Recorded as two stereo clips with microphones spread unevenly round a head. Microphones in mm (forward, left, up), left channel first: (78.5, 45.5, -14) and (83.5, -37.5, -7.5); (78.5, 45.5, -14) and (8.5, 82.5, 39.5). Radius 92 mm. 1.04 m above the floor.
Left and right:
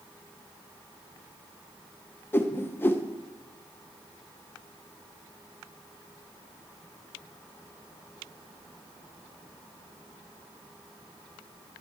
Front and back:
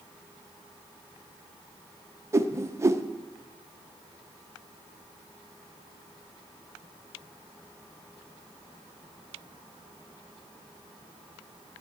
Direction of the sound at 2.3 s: 60° left.